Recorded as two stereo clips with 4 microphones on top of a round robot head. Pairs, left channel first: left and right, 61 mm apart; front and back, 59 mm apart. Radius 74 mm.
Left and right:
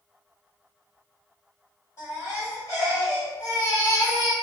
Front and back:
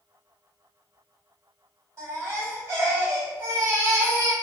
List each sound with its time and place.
2.0 s a baby crying: 140° left, 1.9 m